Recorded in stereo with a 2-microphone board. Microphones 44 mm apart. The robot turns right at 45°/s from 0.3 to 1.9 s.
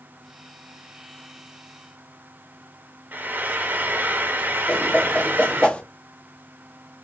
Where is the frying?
45° right (ahead or behind), 0.7 m.